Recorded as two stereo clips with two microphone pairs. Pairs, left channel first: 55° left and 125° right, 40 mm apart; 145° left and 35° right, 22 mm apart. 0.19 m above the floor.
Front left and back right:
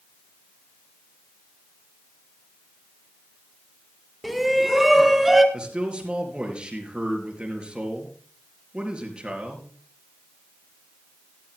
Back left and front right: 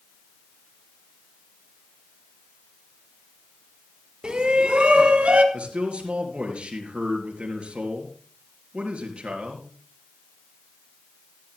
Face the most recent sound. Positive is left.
turn(degrees=-65)